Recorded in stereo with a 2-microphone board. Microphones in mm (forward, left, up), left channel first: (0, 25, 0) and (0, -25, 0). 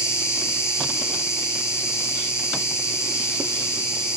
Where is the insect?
65° left (ahead or behind), 2 m.